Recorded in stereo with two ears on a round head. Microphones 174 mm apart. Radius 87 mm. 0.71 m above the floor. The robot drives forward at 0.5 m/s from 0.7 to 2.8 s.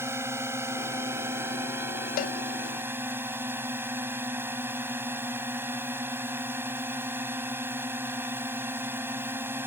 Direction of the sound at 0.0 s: 15° right (ahead or behind).